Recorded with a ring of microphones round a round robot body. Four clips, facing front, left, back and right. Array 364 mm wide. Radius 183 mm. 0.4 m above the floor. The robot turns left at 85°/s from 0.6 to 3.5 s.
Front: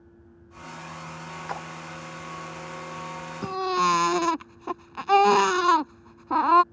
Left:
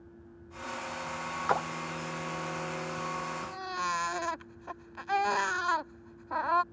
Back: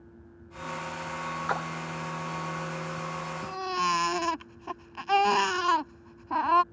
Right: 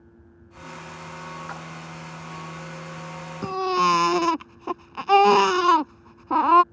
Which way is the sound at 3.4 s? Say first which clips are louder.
Right 13 dB, front 6 dB; 60° right.